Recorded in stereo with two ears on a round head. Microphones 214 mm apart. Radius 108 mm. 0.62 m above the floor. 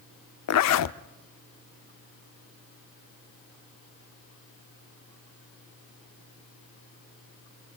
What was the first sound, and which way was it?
A zipper, 75° left (ahead or behind).